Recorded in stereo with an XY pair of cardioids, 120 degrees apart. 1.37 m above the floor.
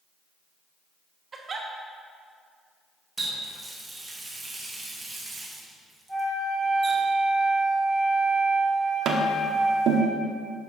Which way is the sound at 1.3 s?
30° right.